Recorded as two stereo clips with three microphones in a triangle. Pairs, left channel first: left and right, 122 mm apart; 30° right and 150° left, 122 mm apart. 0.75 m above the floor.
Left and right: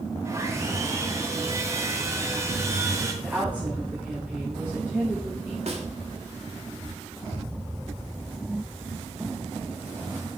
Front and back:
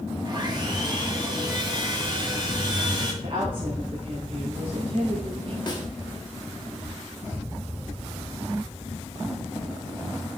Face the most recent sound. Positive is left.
turn(degrees=-80)